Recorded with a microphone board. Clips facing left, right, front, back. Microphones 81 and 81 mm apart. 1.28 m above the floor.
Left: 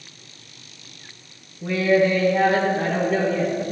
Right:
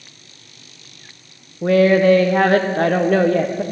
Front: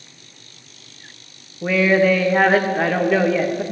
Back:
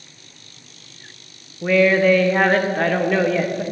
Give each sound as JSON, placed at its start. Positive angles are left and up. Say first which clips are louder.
{"t": 1.6, "sound": "a woman speaking", "louder": "right 6 dB, back 1 dB", "azimuth_deg": -85, "distance_m": 1.1}